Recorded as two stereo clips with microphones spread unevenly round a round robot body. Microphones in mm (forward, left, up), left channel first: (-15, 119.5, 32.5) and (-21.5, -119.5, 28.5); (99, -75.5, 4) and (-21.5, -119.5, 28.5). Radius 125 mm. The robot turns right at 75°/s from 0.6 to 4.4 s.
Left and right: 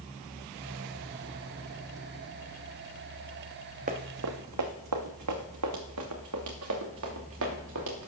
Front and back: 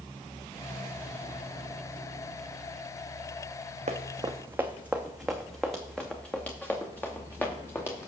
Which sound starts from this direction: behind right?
Running footsteps, at 3.9 s.